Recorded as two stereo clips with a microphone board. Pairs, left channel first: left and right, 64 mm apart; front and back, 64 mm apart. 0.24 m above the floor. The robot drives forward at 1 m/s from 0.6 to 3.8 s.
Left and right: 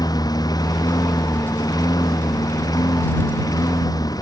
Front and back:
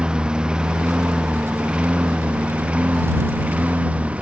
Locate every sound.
0.0 s a lawn mower: 105° left; by 4.2 s 110° left